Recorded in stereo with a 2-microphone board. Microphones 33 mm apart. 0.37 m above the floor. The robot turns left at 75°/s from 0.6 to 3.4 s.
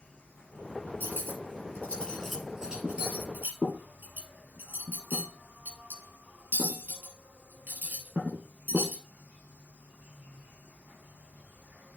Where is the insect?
110° left, 6 m; by 12.0 s 100° right, 6 m.